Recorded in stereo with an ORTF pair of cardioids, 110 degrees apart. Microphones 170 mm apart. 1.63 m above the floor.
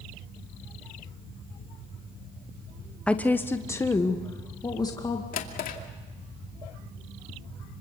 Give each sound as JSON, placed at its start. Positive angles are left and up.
{"t": 3.1, "sound": "a woman speaking", "azimuth_deg": 5, "distance_m": 1.0}
{"t": 5.3, "sound": "a drawer", "azimuth_deg": 60, "distance_m": 2.5}